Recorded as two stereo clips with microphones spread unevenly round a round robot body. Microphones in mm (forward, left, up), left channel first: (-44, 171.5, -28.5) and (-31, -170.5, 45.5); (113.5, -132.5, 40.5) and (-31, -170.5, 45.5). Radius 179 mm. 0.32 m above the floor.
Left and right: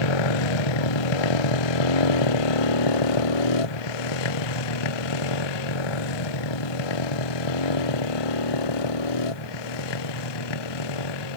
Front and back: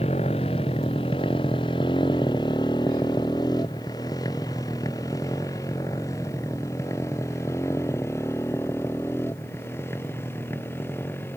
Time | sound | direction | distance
0.0 | a motorcycle | 85° left | ?